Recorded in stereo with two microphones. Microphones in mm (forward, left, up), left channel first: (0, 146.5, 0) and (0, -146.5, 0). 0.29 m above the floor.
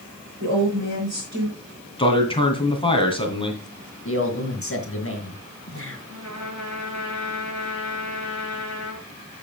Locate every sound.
0.4 s a woman speaking: 60° right (ahead or behind), 5 m
2.0 s a man speaking: 15° left (ahead or behind), 2.5 m
4.0 s a man speaking: 45° left (ahead or behind), 1.9 m
6.1 s a trumpet: 60° right (ahead or behind), 3.5 m